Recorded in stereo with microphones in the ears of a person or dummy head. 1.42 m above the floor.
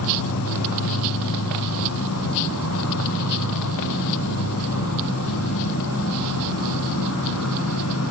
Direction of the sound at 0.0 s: 80° left.